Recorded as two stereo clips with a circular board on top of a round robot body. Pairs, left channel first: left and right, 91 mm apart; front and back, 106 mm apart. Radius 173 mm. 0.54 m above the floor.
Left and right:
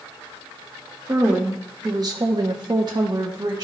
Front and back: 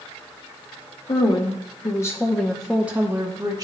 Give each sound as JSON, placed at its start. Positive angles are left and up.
{"t": 1.1, "sound": "a woman speaking", "azimuth_deg": -35, "distance_m": 1.5}